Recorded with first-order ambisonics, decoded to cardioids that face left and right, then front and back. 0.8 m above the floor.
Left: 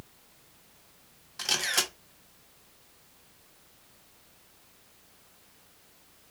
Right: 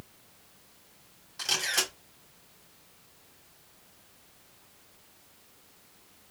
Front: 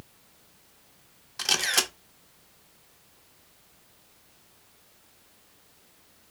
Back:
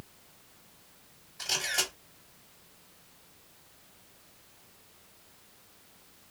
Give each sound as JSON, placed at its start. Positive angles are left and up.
{"t": 1.4, "sound": "a camera shutter", "azimuth_deg": 10, "distance_m": 0.7}